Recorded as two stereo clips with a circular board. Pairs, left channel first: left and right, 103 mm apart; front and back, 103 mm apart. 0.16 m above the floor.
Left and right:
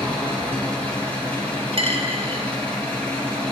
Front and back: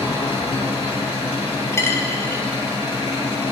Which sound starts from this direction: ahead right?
A dropped coin, at 1.7 s.